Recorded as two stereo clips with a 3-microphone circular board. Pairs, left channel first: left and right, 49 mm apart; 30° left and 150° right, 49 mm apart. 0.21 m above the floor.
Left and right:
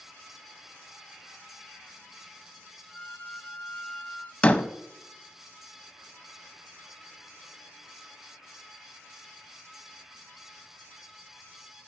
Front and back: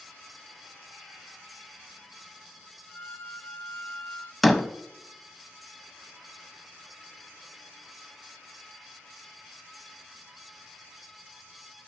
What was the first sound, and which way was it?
A violin, 50° left.